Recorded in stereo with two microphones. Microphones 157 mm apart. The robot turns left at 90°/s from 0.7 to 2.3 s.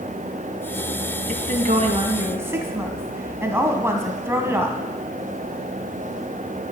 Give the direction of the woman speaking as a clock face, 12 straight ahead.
2 o'clock.